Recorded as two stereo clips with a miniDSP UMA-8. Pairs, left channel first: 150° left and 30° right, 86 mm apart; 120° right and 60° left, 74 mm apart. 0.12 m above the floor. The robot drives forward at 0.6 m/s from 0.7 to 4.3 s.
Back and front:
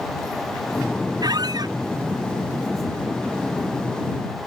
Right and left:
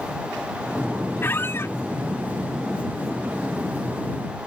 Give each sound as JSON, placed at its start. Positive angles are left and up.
{"t": 1.2, "sound": "a squeak", "azimuth_deg": -60}